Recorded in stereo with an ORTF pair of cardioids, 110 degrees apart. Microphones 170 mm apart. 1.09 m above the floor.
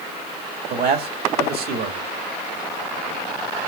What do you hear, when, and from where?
0.7 s a man speaking: 65° right, 1.9 m